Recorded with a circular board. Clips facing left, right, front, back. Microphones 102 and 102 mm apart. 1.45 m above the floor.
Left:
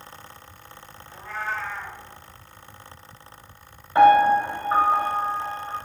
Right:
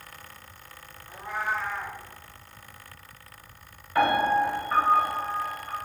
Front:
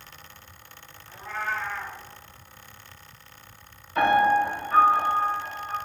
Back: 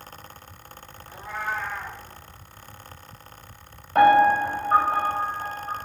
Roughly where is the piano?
Behind left.